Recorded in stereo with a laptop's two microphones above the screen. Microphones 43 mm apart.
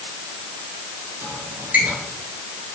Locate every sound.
1.2 s a squeak: 40° right (ahead or behind), 1.6 m